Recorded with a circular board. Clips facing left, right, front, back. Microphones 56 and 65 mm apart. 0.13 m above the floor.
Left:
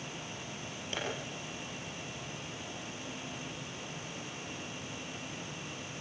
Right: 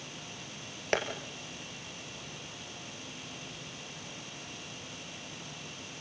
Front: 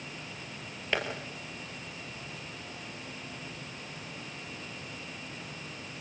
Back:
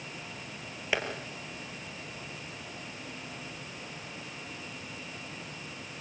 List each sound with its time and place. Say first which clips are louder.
0.9 s tapping: right 9 dB, even; 95° right, 3 m